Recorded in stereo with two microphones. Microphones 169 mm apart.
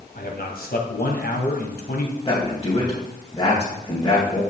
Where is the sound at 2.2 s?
25° left (ahead or behind), 2.5 m.